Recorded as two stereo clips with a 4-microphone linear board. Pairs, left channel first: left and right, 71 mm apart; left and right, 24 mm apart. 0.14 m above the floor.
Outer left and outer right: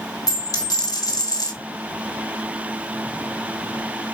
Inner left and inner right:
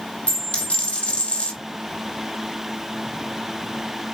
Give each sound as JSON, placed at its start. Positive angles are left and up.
{"t": 0.3, "sound": "a dropped coin", "side_deg": 55, "distance_m": 1.3}